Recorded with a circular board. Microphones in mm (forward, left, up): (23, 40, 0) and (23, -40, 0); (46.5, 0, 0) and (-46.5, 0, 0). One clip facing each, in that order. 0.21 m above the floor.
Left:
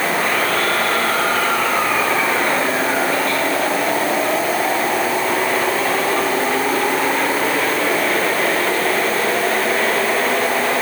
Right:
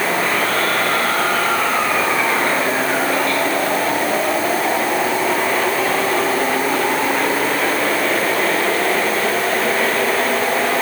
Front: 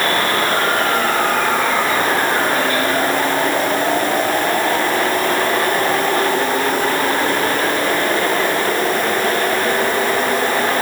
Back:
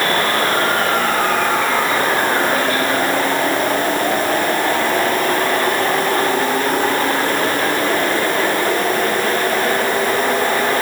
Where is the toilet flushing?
No toilet flushing in this recording.